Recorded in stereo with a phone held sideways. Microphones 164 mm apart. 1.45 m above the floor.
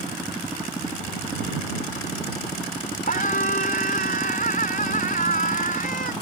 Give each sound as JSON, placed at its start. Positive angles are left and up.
{"t": 3.1, "sound": "a scream", "side_deg": 60}